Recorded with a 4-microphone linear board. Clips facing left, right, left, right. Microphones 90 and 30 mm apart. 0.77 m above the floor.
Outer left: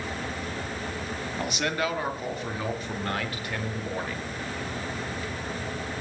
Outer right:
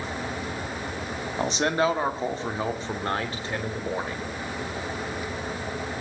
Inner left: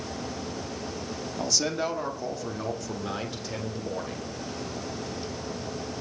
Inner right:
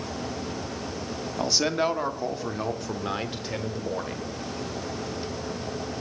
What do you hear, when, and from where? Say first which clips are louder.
1.4 s a man speaking: outer right 6 dB, inner right 4 dB; 30° right (ahead or behind), 1.6 m